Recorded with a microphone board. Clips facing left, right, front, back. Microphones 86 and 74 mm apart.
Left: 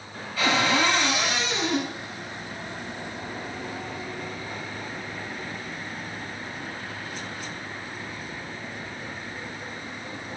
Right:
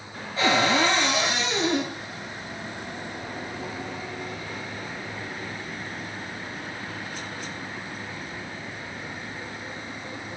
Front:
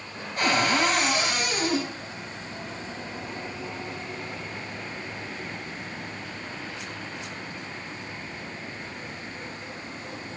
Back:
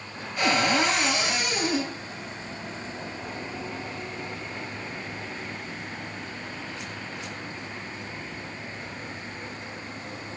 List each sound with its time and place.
0.4 s a cupboard door: 30° right, 1.5 m